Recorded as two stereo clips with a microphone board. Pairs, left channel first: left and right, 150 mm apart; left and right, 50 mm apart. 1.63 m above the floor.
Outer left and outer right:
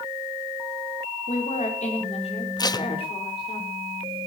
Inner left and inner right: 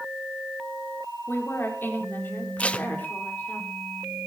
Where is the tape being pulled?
25° left (ahead or behind), 0.7 m.